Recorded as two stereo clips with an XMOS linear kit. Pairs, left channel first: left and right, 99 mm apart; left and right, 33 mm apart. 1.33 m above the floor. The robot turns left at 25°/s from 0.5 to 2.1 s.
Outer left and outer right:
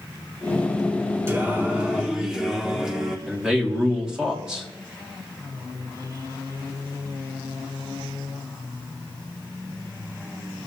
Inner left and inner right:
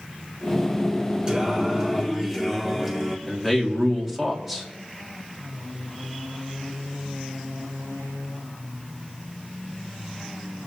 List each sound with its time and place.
1.3 s singing: 25° right (ahead or behind), 1.6 m; by 3.2 s 5° right (ahead or behind), 1.6 m
3.3 s a man speaking: 10° right (ahead or behind), 2.5 m